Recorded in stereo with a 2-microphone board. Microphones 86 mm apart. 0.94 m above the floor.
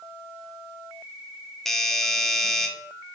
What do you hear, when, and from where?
1.6 s a doorbell: 5° left (ahead or behind), 0.6 m